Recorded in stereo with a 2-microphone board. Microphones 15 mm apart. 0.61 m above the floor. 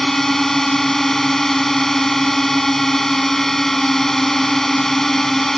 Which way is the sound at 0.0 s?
25° left (ahead or behind).